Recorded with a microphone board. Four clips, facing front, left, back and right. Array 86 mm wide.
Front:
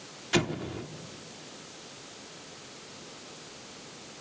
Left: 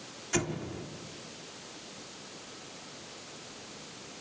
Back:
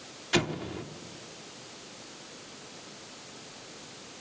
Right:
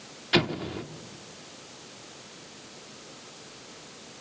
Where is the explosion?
95° right, 0.8 m.